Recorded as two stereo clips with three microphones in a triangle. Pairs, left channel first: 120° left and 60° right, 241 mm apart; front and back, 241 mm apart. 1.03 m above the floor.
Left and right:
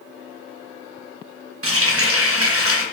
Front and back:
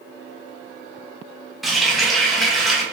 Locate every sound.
1.6 s a running tap: 90° right, 0.5 m